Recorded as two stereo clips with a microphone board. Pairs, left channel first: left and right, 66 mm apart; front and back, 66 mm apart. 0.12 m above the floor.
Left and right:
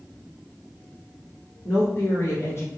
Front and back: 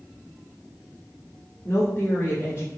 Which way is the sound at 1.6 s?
40° left.